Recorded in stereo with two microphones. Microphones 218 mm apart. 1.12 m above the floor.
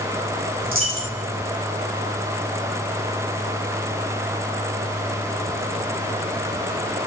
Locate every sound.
0.6 s a dropped coin: 70° right (ahead or behind), 2.0 m